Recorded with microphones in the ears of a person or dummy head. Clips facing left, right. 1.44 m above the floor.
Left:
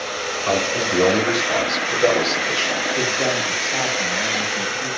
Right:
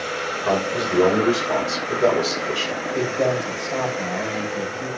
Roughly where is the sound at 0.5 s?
Right.